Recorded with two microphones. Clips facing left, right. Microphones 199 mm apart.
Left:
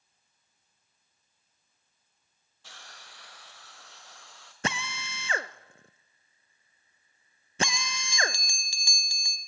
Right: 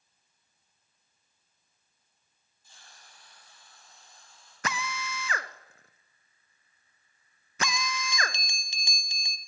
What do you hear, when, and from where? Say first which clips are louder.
2.6 s a hiss: left 6 dB; 85° left, 2.5 m
4.6 s a drill: left 1 dB; 30° left (ahead or behind), 0.5 m
7.6 s a bell: right 2 dB; 20° right (ahead or behind), 0.9 m